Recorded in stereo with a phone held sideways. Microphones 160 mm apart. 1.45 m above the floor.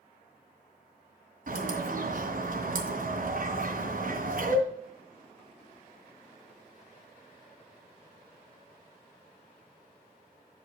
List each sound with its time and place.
1.5 s a bird: 60° right (ahead or behind), 2.5 m